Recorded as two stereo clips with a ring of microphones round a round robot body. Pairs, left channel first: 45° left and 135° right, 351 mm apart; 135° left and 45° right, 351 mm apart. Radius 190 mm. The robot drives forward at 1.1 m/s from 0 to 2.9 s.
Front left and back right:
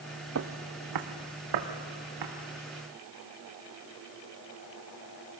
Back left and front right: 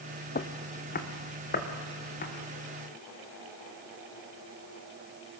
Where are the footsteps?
170° right, 0.6 m; by 2.3 s 160° right, 3.5 m.